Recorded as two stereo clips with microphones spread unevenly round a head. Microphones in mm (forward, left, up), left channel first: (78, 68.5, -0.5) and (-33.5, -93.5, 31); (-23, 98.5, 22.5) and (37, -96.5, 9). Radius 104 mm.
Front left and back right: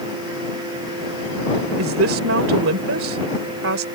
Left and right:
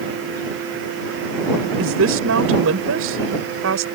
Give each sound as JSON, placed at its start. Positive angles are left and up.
{"t": 1.8, "sound": "a woman speaking", "azimuth_deg": -100}